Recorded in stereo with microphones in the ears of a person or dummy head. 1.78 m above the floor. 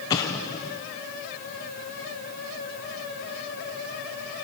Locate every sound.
0.1 s an explosion: 15° left (ahead or behind), 0.7 m